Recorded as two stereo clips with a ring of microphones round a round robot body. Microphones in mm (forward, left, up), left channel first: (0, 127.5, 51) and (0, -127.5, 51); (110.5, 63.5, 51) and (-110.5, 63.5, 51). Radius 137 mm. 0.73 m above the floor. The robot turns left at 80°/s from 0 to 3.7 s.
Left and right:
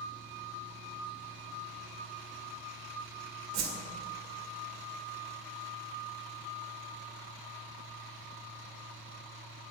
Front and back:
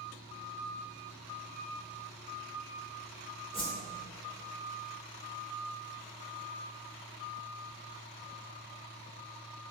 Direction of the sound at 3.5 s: 65° right.